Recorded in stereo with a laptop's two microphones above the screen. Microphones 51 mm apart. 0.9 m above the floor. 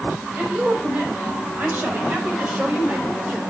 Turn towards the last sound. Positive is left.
turn(degrees=-25)  # may be behind; listen again after turning